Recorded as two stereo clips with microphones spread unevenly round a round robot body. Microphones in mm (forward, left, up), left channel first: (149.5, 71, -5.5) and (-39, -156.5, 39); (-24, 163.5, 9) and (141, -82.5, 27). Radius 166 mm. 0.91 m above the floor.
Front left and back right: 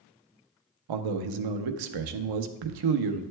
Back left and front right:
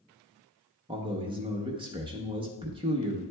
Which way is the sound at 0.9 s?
135° right.